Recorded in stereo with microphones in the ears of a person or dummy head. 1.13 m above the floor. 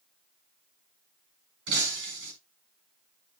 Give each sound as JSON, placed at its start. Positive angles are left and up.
{"t": 1.7, "sound": "breaking glass", "side_deg": -60, "distance_m": 4.5}